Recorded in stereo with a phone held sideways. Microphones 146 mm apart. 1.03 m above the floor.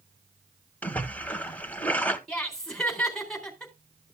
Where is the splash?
10° left (ahead or behind), 1.3 m.